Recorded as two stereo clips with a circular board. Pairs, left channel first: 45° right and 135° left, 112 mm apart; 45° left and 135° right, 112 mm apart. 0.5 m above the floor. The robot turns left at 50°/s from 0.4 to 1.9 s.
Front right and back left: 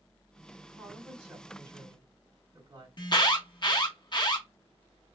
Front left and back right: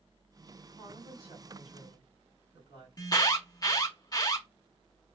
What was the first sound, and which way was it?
A woman speaking, 105° right.